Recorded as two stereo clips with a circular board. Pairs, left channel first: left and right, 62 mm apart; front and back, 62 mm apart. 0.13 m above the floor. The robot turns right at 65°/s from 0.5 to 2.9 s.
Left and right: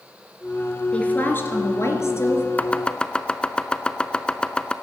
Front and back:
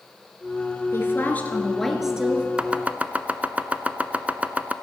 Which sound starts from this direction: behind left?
Chopping, at 2.6 s.